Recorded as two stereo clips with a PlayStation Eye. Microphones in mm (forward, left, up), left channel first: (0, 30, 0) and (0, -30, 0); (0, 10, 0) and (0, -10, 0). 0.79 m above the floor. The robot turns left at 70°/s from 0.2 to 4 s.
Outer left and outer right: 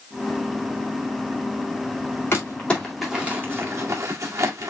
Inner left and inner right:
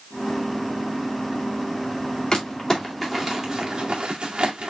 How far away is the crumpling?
About 1.9 m.